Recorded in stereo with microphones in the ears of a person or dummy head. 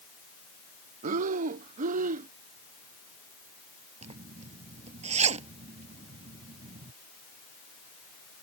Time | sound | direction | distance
1.0 | breathing | 50° right (ahead or behind) | ?
4.0 | a zipper | 40° right (ahead or behind) | ?